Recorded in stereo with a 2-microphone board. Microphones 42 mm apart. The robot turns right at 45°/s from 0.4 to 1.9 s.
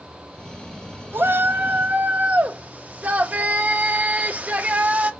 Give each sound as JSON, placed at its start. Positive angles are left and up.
{"t": 1.1, "sound": "a shout", "azimuth_deg": -75, "distance_m": 1.0}